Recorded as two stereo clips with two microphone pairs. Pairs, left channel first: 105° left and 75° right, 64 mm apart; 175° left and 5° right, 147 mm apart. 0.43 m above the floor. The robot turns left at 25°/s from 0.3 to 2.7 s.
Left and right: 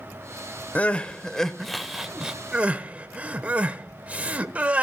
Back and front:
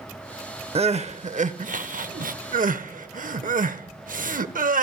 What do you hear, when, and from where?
0.8 s crying: 35° left, 0.6 m; by 4.8 s 15° right, 0.6 m